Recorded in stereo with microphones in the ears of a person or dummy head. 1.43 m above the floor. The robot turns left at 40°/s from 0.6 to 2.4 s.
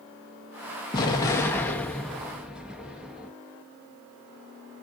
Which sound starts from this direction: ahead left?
An explosion, at 0.9 s.